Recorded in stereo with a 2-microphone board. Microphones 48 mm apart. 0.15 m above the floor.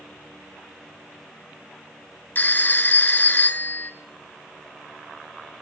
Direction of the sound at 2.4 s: 40° left (ahead or behind).